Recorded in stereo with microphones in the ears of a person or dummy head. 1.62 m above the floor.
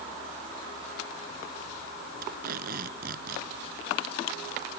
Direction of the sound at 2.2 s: 55° right (ahead or behind).